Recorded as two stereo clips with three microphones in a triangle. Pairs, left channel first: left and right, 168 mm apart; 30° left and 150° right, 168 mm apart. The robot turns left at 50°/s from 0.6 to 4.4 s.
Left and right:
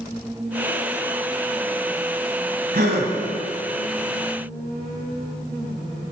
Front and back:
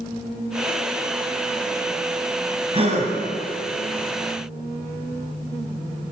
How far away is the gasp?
About 1.2 m.